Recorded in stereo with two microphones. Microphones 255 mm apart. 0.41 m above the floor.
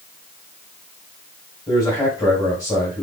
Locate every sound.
1.7 s a man speaking: 15° left (ahead or behind), 2.5 m